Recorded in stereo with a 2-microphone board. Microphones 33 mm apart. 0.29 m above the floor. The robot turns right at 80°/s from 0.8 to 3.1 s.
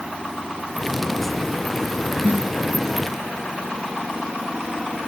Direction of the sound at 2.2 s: 45° right (ahead or behind).